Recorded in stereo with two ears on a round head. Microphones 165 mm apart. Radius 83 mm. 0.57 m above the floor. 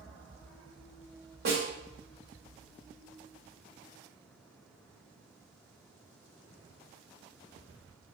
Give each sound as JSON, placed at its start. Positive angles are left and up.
{"t": 1.4, "sound": "a snare drum", "side_deg": -60, "distance_m": 1.6}